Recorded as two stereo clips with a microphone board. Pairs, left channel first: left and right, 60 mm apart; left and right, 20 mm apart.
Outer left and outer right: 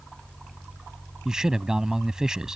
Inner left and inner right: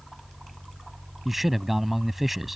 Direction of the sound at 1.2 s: 10° right (ahead or behind).